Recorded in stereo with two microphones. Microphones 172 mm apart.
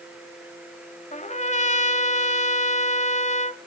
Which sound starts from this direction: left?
A trumpet, at 1.1 s.